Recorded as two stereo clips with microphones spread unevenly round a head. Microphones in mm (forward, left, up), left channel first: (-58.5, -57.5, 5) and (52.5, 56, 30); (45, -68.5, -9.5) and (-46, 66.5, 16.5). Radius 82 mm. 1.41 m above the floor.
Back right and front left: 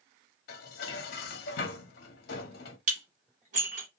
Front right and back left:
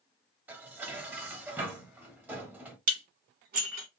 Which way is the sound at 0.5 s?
165° right.